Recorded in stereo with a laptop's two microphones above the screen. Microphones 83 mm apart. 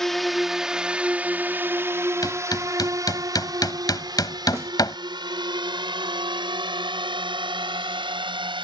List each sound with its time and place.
0.0 s a drone: 5° left (ahead or behind); by 8.7 s 80° right
2.2 s hammering: 50° left (ahead or behind)
4.5 s a snare drum: 35° right (ahead or behind)